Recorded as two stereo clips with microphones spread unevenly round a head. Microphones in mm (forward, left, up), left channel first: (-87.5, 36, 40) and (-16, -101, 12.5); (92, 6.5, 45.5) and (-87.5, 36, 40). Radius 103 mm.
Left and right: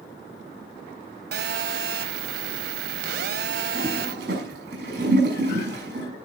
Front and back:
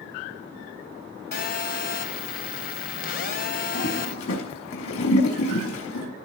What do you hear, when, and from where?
1.3 s a phone buzzing: 40° right, 1.2 m
3.8 s a toilet flushing: 15° right, 6 m